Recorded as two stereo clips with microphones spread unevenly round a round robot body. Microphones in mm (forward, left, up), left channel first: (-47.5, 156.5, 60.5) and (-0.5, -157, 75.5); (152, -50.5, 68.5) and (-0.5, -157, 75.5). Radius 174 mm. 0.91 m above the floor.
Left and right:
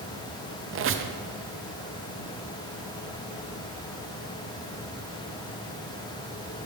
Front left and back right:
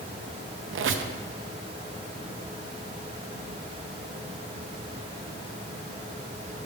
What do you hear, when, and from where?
0.7 s a squeak: 135° right, 0.6 m